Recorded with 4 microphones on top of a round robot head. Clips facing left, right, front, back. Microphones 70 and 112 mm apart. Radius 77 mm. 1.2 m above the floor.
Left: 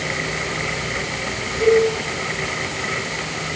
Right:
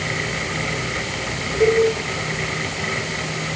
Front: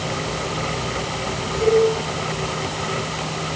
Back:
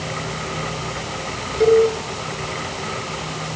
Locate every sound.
1.6 s a cowbell: 155° right, 2.5 m